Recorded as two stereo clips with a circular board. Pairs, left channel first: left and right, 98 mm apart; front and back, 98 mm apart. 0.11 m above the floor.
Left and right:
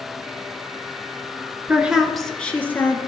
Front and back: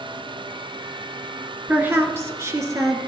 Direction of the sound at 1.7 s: 135° right.